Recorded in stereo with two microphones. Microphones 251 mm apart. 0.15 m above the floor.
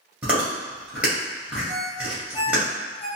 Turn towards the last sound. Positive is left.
turn(degrees=-10)  # may be behind; listen again after turning